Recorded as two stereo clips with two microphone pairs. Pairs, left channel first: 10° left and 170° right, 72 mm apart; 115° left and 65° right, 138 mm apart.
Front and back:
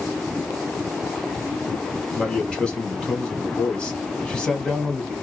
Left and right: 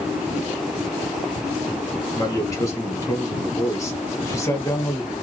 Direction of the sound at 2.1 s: 75° left.